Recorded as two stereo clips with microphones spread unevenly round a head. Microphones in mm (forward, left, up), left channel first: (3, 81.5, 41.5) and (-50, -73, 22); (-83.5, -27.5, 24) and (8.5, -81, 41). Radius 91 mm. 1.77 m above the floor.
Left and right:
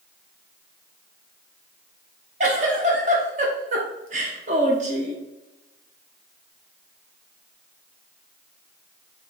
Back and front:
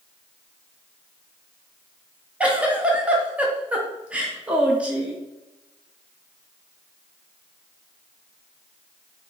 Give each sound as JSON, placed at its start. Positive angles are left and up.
{"t": 2.4, "sound": "a giggle", "azimuth_deg": -80, "distance_m": 0.8}